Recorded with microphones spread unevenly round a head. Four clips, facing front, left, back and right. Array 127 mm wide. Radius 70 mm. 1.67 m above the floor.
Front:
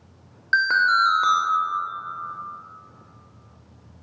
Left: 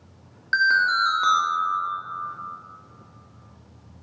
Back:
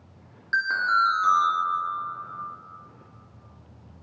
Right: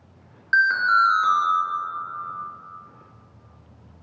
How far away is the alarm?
About 0.7 m.